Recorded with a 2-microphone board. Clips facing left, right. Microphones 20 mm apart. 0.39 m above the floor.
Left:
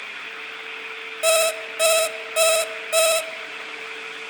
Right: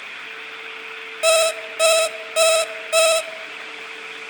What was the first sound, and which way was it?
An alarm clock, 15° right (ahead or behind).